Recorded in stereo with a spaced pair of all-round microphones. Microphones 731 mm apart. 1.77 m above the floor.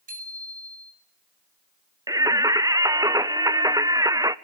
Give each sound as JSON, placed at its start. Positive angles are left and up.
{"t": 0.1, "sound": "a bicycle bell", "side_deg": -50, "distance_m": 8.0}
{"t": 2.1, "sound": "singing", "side_deg": -5, "distance_m": 0.6}